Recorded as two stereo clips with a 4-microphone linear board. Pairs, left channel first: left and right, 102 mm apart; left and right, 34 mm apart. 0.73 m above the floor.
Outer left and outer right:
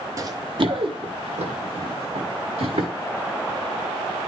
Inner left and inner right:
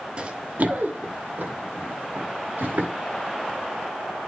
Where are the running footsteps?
35° right (ahead or behind), 1.0 m; by 2.9 s 80° right, 4 m.